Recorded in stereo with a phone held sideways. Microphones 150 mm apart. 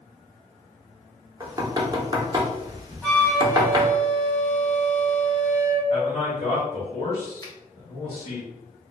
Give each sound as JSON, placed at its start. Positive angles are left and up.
{"t": 1.4, "sound": "knocking", "side_deg": -25, "distance_m": 0.7}
{"t": 3.0, "sound": "a flute", "side_deg": 10, "distance_m": 0.9}
{"t": 5.9, "sound": "a man speaking", "side_deg": 45, "distance_m": 1.8}
{"t": 7.4, "sound": "a finger snap", "side_deg": 25, "distance_m": 0.8}